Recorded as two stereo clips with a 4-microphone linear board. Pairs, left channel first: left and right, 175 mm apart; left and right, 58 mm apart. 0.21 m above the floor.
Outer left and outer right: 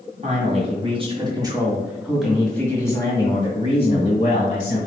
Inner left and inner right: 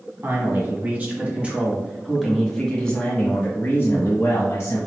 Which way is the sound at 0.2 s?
45° right (ahead or behind).